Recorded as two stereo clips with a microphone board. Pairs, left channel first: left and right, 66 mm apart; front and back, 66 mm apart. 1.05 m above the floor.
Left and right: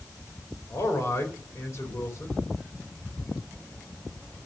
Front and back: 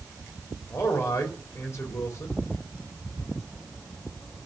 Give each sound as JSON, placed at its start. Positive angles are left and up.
{"t": 0.7, "sound": "a man speaking", "azimuth_deg": 45, "distance_m": 4.0}